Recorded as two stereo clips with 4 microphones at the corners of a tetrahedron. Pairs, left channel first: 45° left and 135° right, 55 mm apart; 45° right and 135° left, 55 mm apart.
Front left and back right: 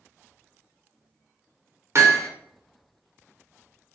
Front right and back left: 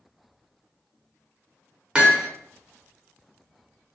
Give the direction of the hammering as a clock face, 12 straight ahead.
5 o'clock.